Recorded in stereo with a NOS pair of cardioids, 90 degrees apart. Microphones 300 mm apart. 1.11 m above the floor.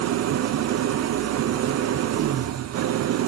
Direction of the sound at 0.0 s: 60° right.